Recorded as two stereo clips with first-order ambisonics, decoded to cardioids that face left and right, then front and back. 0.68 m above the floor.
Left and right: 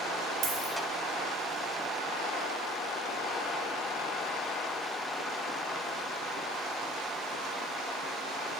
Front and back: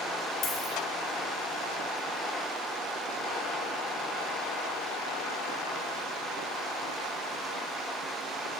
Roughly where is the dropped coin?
Ahead right.